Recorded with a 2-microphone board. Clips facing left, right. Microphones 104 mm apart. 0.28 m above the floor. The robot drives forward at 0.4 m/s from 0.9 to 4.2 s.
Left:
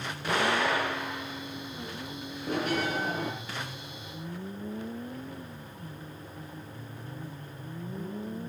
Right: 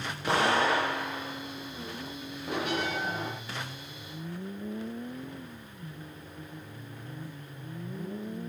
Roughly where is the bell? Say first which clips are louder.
Left 2 dB; left.